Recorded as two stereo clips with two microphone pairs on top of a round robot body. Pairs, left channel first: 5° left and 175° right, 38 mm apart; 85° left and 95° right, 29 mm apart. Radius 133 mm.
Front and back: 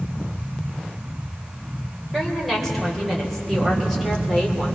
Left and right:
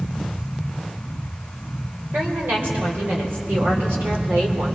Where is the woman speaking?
85° right, 5 m; by 4.8 s 75° right, 3.5 m.